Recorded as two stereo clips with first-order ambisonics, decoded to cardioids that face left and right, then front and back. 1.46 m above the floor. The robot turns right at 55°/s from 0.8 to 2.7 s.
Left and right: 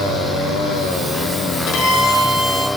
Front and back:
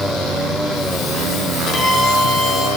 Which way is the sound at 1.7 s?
45° left.